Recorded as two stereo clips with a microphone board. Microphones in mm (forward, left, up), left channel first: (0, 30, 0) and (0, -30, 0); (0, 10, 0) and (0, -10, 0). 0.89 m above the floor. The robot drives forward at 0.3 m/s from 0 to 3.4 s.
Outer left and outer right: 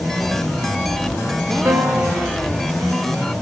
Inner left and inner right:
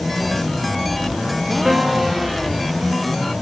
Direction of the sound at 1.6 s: 50° right (ahead or behind).